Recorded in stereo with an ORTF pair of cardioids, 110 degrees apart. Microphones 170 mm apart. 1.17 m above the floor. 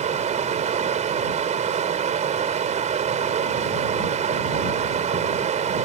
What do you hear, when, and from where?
0.0 s running water: 45° right